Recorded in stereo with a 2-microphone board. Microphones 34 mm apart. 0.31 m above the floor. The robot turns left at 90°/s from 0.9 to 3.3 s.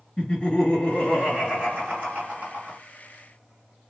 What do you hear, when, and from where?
0.2 s laughter: 25° left, 2.5 m; by 2.8 s 145° right, 2.5 m